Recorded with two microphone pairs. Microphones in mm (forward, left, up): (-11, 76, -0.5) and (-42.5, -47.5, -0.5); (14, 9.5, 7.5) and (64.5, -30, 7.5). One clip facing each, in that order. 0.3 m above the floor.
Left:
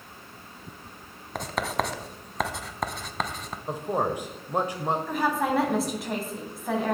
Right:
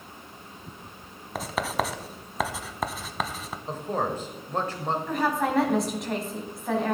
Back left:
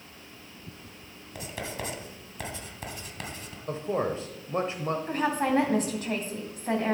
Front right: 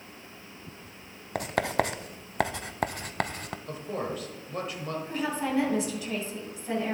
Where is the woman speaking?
165° left, 2.5 m.